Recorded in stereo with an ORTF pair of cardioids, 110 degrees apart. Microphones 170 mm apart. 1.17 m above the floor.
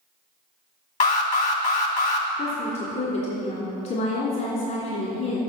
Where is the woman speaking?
55° left, 3 m.